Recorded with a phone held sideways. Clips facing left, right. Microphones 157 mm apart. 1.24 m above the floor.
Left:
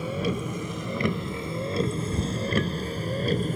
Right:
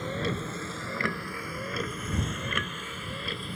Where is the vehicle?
10° left (ahead or behind); by 3.5 s 45° left (ahead or behind).